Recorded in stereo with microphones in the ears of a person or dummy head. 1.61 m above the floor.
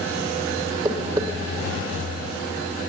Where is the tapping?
20° right (ahead or behind), 2.5 m.